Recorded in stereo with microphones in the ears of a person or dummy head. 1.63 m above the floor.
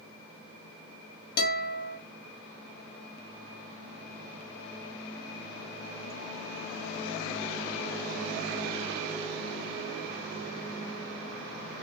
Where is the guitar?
50° left (ahead or behind), 1.4 m.